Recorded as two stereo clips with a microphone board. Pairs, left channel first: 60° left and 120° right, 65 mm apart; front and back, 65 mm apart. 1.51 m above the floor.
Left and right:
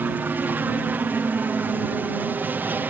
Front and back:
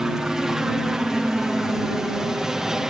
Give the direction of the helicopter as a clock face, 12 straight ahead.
4 o'clock.